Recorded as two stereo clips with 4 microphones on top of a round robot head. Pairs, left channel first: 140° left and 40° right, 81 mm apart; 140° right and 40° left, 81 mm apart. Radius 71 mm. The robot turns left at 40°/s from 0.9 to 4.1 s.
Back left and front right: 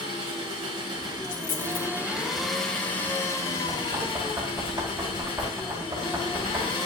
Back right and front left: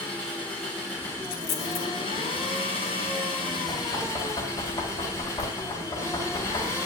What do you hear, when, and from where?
0.0 s an engine running: 65° right, 3.5 m; by 6.9 s 165° left, 3.5 m
1.2 s a dropped coin: 135° right, 1.3 m; by 1.9 s 165° right, 1.3 m
3.7 s knocking: 90° right, 4.5 m; by 6.8 s 105° right, 4.5 m